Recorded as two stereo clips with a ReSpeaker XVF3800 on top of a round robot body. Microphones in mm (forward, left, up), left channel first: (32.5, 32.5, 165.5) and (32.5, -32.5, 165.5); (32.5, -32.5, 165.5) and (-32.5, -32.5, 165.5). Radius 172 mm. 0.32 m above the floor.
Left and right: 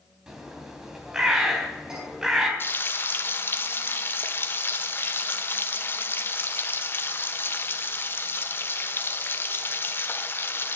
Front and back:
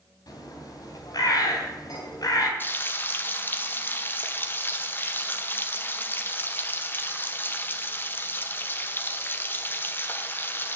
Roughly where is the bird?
Ahead.